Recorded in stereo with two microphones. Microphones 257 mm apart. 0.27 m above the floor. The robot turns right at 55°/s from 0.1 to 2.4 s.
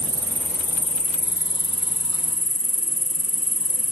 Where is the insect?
20° right; by 3.9 s 110° left.